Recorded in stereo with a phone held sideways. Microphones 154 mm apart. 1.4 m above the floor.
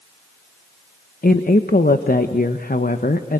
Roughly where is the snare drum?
I don't hear a snare drum.